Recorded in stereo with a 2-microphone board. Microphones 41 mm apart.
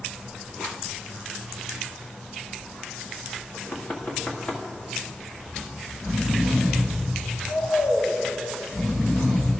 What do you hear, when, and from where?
3.5 s knocking: 30° left (ahead or behind), 1.7 m
5.5 s snoring: 50° left (ahead or behind), 2 m